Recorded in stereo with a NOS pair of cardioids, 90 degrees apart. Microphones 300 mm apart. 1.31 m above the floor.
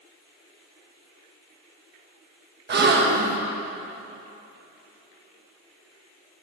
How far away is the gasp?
About 1.4 m.